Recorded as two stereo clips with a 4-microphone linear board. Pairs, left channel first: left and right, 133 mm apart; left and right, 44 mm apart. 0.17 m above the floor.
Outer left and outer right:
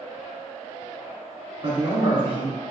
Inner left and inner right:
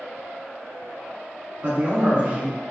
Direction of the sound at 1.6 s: 40° right (ahead or behind).